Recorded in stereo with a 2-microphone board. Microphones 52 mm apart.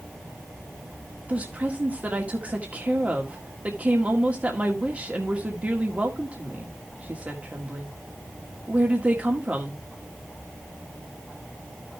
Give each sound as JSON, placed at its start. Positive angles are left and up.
{"t": 1.3, "sound": "a woman speaking", "side_deg": -30, "distance_m": 1.6}